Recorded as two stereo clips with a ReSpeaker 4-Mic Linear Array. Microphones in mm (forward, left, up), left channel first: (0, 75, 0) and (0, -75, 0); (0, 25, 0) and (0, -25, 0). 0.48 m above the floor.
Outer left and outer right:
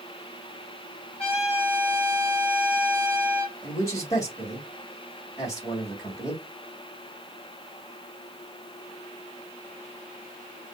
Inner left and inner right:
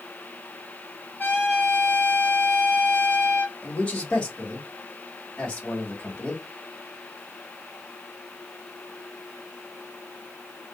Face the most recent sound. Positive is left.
turn(degrees=25)  # may be behind; listen again after turning